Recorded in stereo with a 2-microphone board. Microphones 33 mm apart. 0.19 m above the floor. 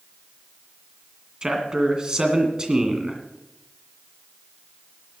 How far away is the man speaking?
About 2 m.